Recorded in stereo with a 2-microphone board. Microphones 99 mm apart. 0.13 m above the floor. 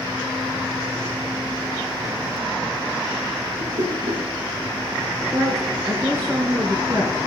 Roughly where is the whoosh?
Right.